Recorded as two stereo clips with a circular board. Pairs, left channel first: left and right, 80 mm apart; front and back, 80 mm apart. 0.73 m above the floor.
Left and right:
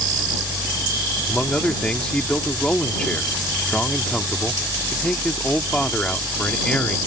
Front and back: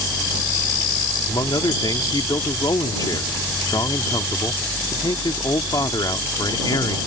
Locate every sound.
1.3 s a man speaking: 15° left